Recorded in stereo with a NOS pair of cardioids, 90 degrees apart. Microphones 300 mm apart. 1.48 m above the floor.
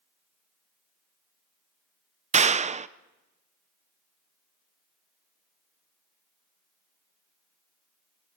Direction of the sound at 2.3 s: 25° right.